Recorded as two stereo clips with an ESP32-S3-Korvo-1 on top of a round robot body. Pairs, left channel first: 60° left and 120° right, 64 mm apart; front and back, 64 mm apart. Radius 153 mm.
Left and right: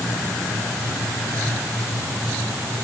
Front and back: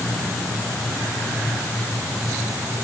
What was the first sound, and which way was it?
Only background noise.